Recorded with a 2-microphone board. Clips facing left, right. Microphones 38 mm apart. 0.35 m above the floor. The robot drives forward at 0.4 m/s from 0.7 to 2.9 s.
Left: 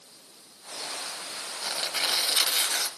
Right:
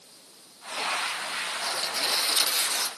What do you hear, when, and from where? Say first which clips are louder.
1.6 s tearing paper: left 3 dB; 50° left (ahead or behind), 2 m; by 2.9 s 55° left (ahead or behind), 2.0 m